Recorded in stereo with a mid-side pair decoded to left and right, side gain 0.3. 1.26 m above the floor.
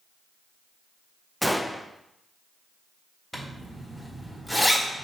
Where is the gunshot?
5° left, 0.7 m.